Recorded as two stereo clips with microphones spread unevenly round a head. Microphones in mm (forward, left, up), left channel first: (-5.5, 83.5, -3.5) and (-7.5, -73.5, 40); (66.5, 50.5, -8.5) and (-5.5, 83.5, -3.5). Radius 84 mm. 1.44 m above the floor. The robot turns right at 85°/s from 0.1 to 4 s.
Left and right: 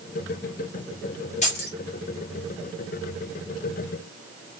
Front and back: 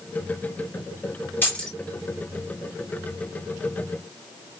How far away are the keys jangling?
About 1.8 m.